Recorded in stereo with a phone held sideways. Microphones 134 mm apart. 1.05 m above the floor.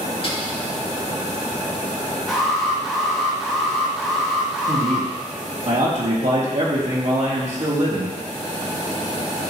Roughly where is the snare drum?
Left.